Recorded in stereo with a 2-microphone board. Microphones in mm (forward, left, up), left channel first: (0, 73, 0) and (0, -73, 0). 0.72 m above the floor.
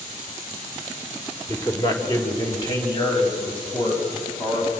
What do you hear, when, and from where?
1.5 s a man speaking: 20° left (ahead or behind), 3 m; by 4.7 s 35° left (ahead or behind), 7.5 m